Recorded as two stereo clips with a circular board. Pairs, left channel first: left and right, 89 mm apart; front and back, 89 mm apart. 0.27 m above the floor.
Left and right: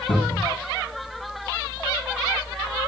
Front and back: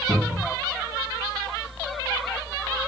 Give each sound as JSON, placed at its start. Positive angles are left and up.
{"t": 0.1, "sound": "a cupboard door", "azimuth_deg": 85, "distance_m": 3.0}